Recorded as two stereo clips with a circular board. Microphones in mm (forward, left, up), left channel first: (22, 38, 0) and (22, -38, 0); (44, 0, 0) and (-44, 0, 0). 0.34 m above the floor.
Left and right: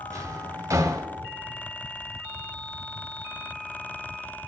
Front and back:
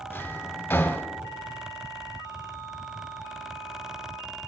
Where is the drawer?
55° right, 1.0 m.